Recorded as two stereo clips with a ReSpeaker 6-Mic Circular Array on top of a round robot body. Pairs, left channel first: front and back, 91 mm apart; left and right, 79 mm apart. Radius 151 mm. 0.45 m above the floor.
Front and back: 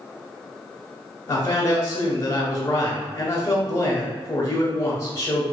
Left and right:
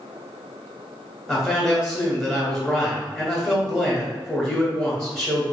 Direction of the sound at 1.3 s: 5° left.